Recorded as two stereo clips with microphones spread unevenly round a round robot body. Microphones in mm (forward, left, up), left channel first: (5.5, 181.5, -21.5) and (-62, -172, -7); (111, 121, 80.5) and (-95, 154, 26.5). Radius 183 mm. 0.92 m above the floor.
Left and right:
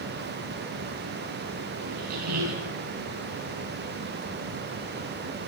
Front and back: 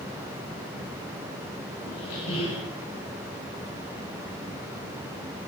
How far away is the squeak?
About 2.5 m.